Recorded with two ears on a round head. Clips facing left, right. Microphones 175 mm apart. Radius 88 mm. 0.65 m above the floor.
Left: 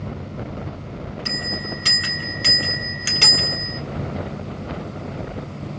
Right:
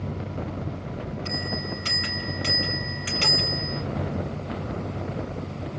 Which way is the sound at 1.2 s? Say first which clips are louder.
Left 3 dB; 60° left (ahead or behind).